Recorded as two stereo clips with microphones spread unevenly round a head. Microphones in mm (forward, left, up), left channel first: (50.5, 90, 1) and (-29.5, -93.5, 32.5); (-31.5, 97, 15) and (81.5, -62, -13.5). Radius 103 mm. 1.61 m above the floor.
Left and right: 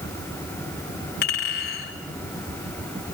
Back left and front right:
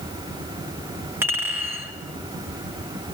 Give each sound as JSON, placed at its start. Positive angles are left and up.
{"t": 1.2, "sound": "a clink", "azimuth_deg": 25, "distance_m": 4.0}